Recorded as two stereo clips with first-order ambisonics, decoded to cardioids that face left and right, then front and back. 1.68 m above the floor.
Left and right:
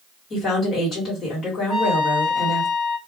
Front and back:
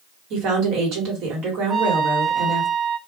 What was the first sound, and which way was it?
A woman speaking, 155° left.